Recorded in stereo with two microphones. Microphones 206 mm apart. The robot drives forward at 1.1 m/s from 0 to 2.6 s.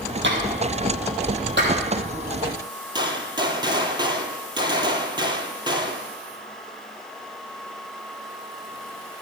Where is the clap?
70° right (ahead or behind), 4.5 m; by 1.7 s 60° right (ahead or behind), 5 m.